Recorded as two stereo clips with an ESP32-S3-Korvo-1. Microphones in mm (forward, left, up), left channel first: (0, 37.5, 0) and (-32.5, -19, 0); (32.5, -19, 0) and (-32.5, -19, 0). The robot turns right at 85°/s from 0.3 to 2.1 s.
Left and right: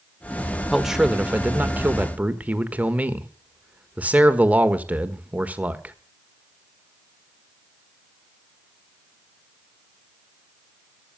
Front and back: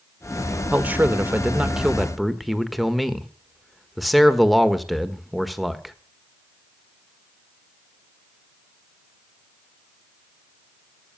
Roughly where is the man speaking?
Behind left.